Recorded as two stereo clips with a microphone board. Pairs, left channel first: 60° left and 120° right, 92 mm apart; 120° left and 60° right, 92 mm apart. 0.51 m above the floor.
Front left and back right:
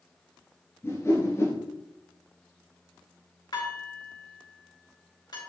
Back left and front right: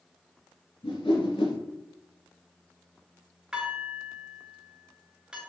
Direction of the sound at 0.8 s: 120° left.